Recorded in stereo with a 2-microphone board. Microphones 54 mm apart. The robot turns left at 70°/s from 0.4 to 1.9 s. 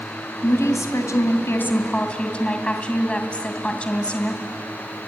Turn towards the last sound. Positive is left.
turn(degrees=25)